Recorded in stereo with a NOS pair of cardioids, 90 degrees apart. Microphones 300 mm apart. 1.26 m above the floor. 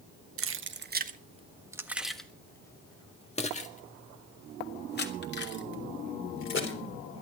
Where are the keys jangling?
45° right, 1.2 m; by 7.2 s 40° left, 4 m.